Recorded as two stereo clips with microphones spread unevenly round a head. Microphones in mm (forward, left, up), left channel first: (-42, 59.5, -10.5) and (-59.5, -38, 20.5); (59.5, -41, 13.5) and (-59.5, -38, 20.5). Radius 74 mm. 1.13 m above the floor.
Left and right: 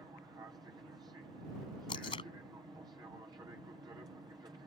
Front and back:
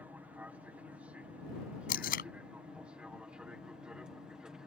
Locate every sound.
0.0 s an aircraft: 125° right; by 4.7 s 105° right
1.9 s tape being pulled: 20° left